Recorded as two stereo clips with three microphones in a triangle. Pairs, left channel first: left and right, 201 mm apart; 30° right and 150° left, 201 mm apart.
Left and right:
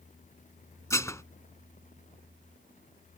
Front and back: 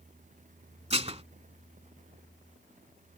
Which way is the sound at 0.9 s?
150° left.